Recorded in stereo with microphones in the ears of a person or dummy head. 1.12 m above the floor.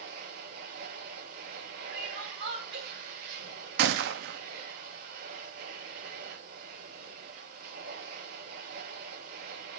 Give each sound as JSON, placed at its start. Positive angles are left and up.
{"t": 0.0, "sound": "a machine running", "side_deg": -60, "distance_m": 7.5}
{"t": 1.9, "sound": "crying", "side_deg": -65, "distance_m": 6.0}
{"t": 3.8, "sound": "a gunshot", "side_deg": -60, "distance_m": 0.7}